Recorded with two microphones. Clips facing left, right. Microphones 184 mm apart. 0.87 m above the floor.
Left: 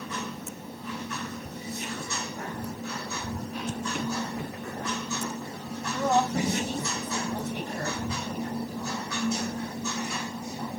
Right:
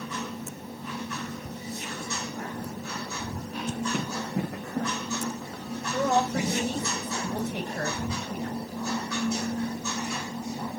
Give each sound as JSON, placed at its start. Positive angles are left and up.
{"t": 3.9, "sound": "running footsteps", "side_deg": -80, "distance_m": 4.0}
{"t": 5.9, "sound": "a woman speaking", "side_deg": -75, "distance_m": 5.5}